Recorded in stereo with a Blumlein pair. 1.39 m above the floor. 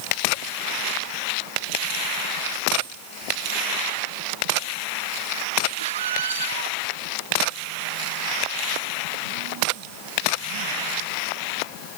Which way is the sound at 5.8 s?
65° right.